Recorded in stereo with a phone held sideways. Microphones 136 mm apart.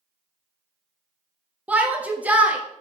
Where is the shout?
10° right (ahead or behind), 0.7 m.